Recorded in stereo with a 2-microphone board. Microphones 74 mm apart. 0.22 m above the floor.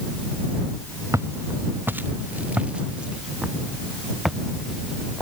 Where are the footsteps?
45° right (ahead or behind); by 5.2 s centre (ahead or behind).